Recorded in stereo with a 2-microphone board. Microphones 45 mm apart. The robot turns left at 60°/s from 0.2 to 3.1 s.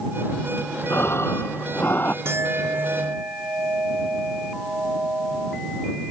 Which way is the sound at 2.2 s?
65° right.